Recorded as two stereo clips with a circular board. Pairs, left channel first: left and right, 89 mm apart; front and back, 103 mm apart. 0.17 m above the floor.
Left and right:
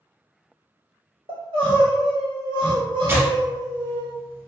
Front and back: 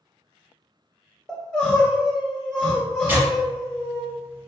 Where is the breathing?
No breathing in this recording.